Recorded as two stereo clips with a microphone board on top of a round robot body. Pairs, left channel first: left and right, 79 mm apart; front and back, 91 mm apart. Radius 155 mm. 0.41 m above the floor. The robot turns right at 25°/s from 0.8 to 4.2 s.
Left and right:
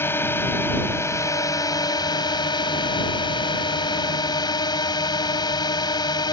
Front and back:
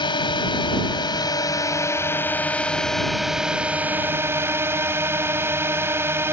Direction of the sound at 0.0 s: 30° left.